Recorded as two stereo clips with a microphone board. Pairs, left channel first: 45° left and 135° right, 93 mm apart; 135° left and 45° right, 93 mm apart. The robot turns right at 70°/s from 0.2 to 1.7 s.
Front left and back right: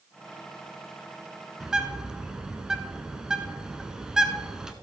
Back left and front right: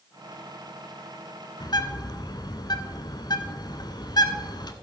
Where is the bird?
140° left, 0.8 m; by 4.7 s 145° left, 0.8 m.